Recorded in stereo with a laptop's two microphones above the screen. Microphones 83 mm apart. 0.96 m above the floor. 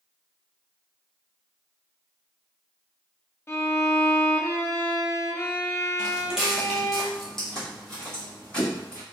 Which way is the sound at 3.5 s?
30° left (ahead or behind).